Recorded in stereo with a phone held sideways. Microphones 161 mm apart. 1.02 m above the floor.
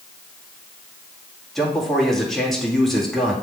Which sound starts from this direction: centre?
A man speaking, at 1.6 s.